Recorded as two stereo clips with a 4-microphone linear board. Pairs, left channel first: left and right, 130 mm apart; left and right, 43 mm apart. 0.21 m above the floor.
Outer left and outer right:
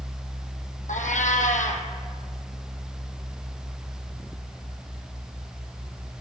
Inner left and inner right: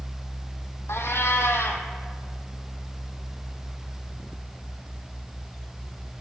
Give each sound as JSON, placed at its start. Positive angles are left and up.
{"t": 0.9, "sound": "a cat meowing", "side_deg": 85, "distance_m": 0.9}